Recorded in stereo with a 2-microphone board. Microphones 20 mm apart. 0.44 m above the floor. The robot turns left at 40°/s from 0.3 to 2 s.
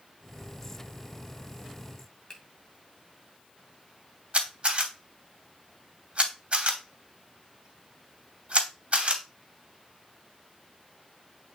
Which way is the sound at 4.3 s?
60° right (ahead or behind).